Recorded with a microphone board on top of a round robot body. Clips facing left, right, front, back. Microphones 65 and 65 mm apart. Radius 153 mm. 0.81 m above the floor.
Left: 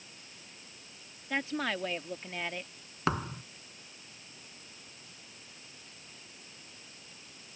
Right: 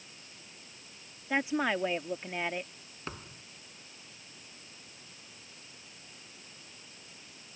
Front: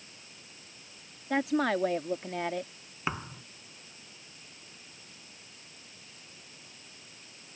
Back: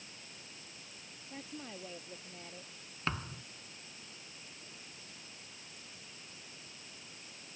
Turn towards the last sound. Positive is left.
turn(degrees=80)